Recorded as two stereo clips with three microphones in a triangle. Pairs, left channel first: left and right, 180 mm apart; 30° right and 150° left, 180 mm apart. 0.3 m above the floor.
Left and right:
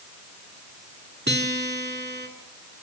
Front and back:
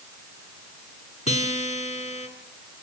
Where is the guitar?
80° right, 2.5 m.